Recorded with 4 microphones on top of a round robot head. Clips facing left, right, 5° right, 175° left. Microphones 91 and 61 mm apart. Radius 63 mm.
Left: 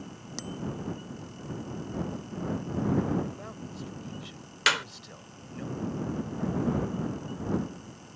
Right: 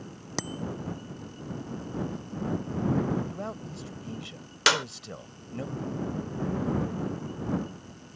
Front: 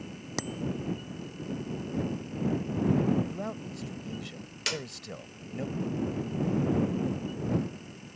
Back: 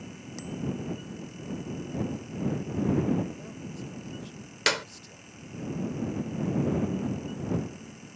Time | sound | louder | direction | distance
0.4 | a bicycle bell | right 4 dB, front 2 dB | 45° right | ?
3.3 | a man speaking | right 4 dB, front 4 dB | 40° right | ?
4.7 | a clap | right 3 dB, back 7 dB | 150° right | ?